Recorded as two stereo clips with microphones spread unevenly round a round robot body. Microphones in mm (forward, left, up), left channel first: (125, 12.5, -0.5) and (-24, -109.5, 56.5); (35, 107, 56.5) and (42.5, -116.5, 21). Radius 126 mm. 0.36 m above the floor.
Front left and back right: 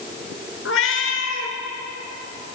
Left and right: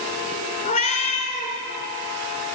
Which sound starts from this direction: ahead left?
A cat meowing, at 0.7 s.